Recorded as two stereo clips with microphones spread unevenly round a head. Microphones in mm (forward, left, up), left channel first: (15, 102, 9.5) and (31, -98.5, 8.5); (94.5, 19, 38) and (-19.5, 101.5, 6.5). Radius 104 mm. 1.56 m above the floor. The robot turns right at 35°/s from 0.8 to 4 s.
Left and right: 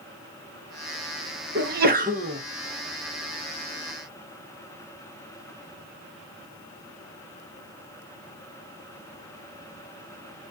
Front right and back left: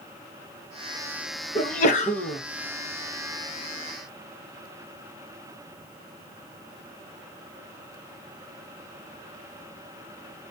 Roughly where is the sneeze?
Ahead right.